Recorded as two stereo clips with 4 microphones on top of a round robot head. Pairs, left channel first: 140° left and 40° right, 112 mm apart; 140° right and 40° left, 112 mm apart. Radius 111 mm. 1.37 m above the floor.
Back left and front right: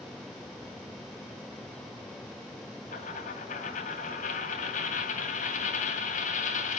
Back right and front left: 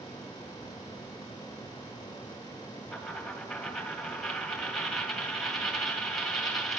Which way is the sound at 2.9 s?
130° left.